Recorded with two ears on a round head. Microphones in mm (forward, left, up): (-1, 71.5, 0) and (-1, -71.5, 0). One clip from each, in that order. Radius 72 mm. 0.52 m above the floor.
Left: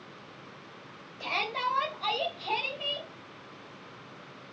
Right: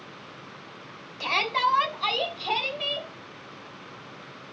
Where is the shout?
40° right (ahead or behind), 2.5 m; by 3.1 s 30° right (ahead or behind), 3.5 m.